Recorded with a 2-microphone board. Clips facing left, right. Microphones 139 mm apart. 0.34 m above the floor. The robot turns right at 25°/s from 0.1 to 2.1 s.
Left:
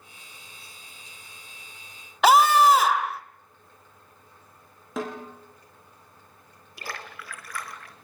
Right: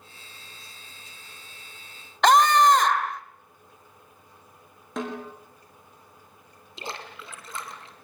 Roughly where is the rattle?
No rattle in this recording.